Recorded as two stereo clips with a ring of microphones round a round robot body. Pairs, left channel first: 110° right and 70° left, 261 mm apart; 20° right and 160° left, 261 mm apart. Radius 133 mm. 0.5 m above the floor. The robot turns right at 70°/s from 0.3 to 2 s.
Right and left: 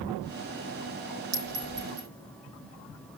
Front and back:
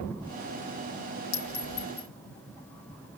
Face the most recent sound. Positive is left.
turn(degrees=50)